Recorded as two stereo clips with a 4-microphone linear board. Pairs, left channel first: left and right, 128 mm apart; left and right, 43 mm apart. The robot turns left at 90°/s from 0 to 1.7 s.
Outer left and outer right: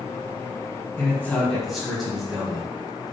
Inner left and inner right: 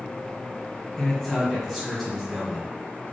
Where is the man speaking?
15° left (ahead or behind), 1.2 m; by 2.7 s centre (ahead or behind), 1.2 m.